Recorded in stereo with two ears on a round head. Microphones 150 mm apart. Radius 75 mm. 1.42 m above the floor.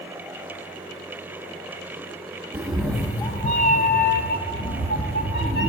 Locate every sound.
2.5 s a cat meowing: 15° right (ahead or behind), 0.6 m; by 5.7 s 70° left (ahead or behind), 1.7 m